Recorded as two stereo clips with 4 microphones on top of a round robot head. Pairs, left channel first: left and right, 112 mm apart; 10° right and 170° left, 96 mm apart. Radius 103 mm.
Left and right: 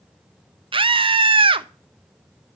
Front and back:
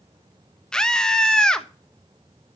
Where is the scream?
90° right, 1.2 m.